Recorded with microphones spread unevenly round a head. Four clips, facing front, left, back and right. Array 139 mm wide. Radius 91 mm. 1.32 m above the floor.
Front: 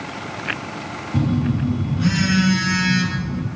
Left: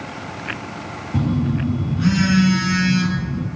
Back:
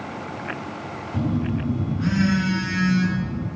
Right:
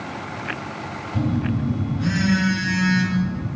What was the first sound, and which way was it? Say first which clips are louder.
A phone buzzing: left 3 dB, front 4 dB; 60° left.